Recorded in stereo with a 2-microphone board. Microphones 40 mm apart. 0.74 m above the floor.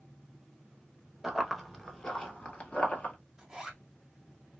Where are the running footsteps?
10° right (ahead or behind), 0.8 m; by 3.1 s 40° left (ahead or behind), 0.9 m.